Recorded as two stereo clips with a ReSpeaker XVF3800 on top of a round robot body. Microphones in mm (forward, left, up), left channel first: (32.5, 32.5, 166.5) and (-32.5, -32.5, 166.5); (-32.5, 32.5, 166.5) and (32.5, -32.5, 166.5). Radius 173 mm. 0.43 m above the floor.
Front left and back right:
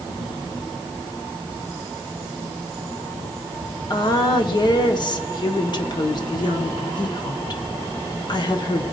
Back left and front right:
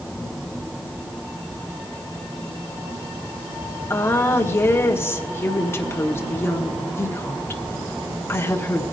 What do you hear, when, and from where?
3.9 s a woman speaking: 75° left, 1.6 m